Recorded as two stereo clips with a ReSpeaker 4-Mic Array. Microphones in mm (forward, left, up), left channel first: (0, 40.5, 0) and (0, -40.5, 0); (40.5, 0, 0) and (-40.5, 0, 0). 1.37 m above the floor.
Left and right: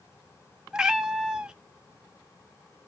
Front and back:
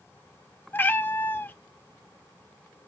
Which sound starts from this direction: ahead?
A cat meowing, at 0.7 s.